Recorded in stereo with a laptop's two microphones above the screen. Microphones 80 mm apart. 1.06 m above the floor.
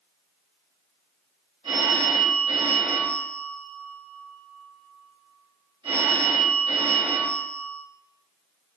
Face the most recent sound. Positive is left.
turn(degrees=-75)  # may be behind; listen again after turning